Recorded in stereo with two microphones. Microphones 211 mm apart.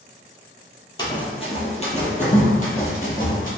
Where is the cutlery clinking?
I don't hear cutlery clinking.